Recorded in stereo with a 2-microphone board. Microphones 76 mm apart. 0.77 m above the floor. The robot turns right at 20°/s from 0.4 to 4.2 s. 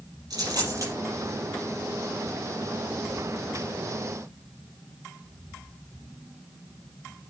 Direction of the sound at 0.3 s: 55° right (ahead or behind).